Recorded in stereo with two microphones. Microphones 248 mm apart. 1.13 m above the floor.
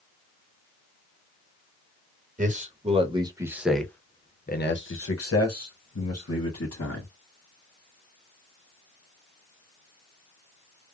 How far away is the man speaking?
About 1.2 m.